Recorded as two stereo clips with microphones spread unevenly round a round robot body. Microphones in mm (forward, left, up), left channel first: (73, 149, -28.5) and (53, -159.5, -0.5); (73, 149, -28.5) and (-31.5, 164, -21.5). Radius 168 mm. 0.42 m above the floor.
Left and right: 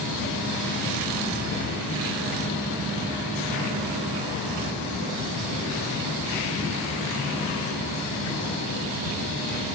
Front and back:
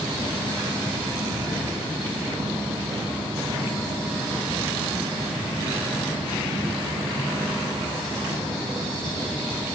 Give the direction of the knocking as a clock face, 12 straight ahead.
No knocking in this recording.